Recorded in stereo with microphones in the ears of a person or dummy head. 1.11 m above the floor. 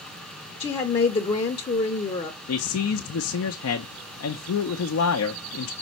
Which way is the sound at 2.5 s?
65° left (ahead or behind).